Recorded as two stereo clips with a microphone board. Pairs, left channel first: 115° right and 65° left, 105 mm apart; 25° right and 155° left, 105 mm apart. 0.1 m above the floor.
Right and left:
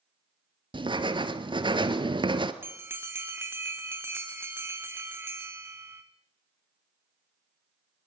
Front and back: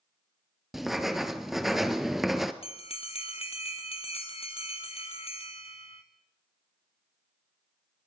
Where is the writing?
70° left, 1.6 m.